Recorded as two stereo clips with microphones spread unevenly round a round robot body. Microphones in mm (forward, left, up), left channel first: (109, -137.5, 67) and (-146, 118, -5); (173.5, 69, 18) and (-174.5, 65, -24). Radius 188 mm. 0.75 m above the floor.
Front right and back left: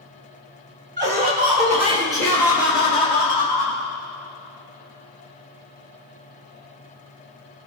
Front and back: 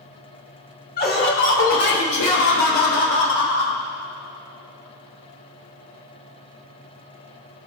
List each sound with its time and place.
1.0 s laughter: 70° left, 3 m; by 3.8 s 25° left, 4 m